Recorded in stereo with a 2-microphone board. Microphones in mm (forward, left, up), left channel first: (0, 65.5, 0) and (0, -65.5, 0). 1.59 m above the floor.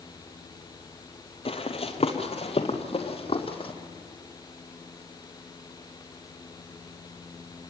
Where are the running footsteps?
45° left (ahead or behind), 2 m; by 3.7 s 40° left (ahead or behind), 3 m.